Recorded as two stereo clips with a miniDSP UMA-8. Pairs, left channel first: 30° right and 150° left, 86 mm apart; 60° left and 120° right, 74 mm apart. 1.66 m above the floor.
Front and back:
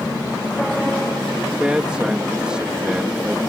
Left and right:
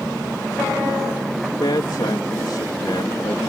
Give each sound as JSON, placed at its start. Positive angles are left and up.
{"t": 1.5, "sound": "a man speaking", "azimuth_deg": 70}